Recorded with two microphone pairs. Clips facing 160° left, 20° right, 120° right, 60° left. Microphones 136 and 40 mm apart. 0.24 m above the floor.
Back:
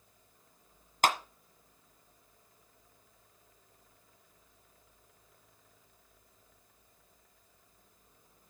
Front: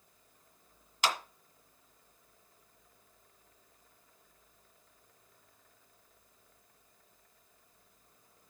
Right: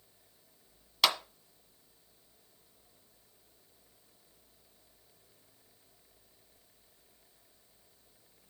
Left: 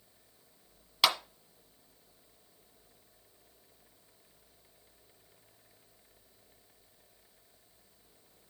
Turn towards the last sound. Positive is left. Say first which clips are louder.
# back 5 dB, left 1 dB
turn(degrees=150)